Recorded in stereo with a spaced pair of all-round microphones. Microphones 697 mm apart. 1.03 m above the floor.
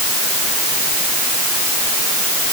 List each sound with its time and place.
Only background noise.